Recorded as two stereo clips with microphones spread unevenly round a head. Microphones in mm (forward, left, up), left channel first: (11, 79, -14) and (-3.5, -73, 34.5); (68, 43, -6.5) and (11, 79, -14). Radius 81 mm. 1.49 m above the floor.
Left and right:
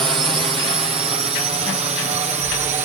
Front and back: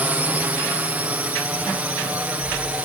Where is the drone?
155° right; by 2.9 s 145° right.